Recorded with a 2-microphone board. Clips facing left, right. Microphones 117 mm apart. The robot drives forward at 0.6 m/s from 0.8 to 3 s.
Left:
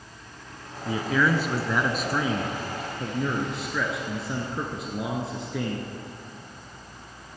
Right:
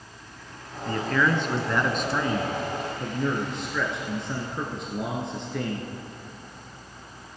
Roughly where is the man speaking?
Centre.